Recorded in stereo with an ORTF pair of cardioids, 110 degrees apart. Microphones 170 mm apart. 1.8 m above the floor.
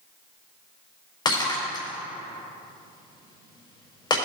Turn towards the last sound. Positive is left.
turn(degrees=25)